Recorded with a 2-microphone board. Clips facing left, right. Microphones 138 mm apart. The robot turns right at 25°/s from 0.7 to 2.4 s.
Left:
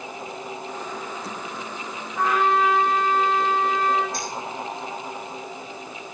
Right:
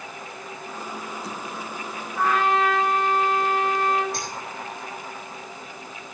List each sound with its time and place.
2.2 s a trumpet: 10° left (ahead or behind), 1.3 m; by 4.0 s 5° left (ahead or behind), 1.3 m
4.1 s a finger snap: 70° right (ahead or behind), 4 m